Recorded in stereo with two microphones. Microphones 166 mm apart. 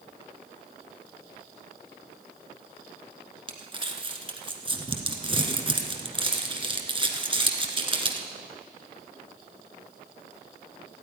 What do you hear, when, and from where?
3.5 s crumpling: 30° right (ahead or behind), 1.5 m